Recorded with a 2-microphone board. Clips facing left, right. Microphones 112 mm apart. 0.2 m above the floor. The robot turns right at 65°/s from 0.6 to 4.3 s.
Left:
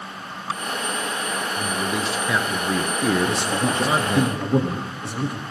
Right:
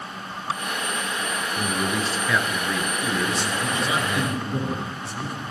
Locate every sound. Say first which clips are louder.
1.6 s a man speaking: right 1 dB; 25° right, 3 m; by 4.2 s 150° left, 3 m
3.2 s a man speaking: left 3 dB; 50° left, 7 m; by 5.4 s 115° left, 7 m